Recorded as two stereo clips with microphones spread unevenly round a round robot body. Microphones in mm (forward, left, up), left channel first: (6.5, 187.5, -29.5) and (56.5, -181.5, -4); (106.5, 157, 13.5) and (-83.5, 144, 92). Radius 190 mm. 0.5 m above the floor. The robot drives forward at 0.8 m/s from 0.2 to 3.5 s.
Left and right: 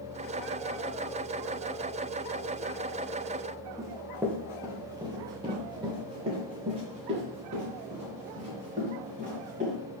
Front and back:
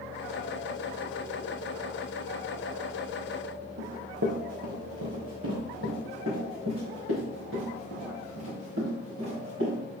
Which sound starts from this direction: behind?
Running footsteps, at 3.8 s.